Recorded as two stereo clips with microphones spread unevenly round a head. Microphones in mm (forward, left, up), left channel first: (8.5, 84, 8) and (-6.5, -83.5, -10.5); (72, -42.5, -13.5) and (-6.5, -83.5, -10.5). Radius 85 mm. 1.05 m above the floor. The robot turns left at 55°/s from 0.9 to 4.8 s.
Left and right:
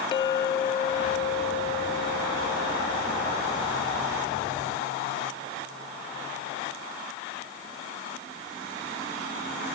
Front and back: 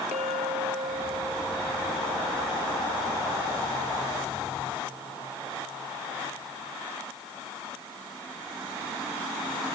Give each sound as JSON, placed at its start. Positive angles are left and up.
{"t": 0.1, "sound": "a clink", "azimuth_deg": 150}